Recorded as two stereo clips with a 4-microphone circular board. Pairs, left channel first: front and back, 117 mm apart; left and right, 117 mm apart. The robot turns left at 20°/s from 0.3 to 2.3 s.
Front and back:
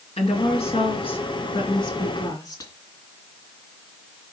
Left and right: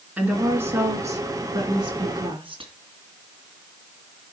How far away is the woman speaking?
About 2.5 m.